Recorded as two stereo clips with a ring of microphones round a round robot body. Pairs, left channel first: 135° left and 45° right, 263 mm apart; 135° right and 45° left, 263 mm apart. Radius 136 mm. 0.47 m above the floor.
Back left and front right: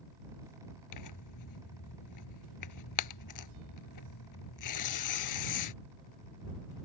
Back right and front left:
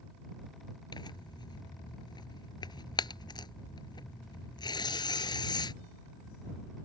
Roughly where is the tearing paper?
Behind left.